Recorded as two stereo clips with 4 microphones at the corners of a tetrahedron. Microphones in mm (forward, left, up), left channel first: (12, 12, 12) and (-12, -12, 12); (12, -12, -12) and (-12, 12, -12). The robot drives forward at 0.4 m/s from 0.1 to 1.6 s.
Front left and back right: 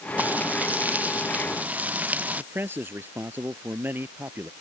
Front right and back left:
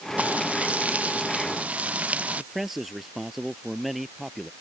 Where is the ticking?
No ticking in this recording.